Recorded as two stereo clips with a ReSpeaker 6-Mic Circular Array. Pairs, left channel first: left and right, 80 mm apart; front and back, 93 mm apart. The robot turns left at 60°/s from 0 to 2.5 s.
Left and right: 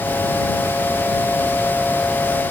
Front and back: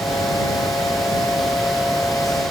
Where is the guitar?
I don't hear a guitar.